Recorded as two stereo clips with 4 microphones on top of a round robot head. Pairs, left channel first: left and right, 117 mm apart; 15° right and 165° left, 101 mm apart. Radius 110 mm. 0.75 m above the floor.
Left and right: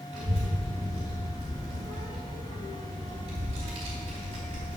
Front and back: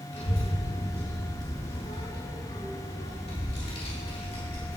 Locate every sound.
0.1 s a child speaking: 45° right, 2.5 m